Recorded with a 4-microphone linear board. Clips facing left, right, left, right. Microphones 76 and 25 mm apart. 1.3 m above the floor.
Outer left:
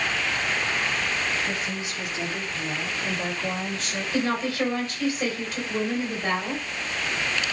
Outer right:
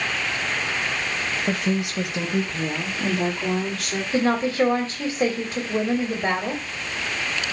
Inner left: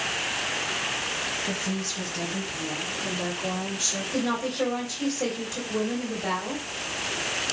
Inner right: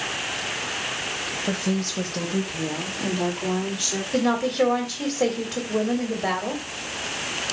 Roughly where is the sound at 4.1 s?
Right.